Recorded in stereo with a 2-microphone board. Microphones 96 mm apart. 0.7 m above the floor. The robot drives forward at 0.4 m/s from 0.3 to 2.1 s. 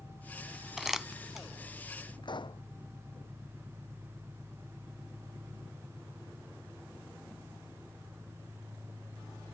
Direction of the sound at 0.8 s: 5° right (ahead or behind).